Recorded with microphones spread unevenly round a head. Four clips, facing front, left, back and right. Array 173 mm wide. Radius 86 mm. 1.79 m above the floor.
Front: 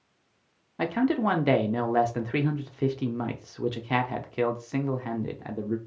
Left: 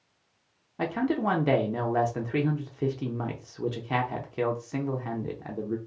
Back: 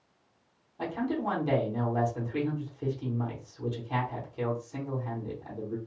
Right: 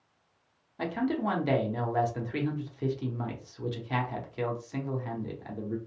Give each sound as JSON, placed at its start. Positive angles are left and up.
{"t": 0.8, "sound": "a man speaking", "azimuth_deg": 35, "distance_m": 0.5}